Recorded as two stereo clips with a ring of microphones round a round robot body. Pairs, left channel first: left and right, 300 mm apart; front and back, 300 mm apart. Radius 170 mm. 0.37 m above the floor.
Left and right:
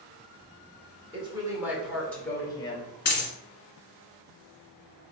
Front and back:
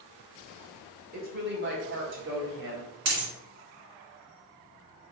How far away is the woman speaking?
About 1.3 m.